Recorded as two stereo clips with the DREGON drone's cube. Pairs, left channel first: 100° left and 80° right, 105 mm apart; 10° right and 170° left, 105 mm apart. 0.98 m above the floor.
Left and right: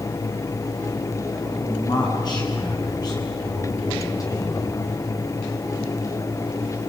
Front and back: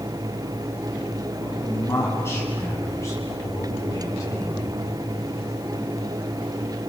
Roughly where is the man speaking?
Ahead left.